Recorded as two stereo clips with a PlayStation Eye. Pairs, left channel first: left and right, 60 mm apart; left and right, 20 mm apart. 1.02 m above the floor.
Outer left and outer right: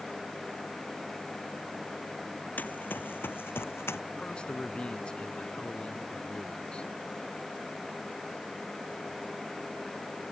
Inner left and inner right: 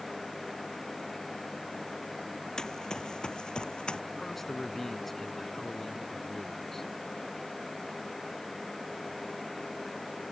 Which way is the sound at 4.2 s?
20° left (ahead or behind).